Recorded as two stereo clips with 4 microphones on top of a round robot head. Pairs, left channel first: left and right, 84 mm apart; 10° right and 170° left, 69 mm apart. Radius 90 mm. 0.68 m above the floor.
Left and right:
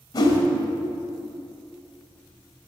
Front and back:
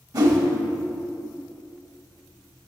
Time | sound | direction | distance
0.1 | a whoosh | 140° left | 1.6 m